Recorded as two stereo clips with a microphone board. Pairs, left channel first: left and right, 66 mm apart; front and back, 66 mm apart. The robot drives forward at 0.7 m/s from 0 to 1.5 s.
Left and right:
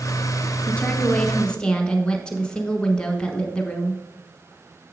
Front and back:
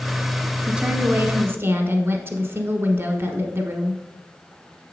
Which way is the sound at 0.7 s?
120° left.